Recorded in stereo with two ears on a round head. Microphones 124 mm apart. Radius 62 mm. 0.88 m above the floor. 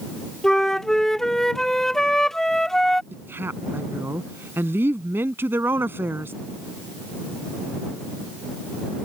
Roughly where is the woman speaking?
Centre.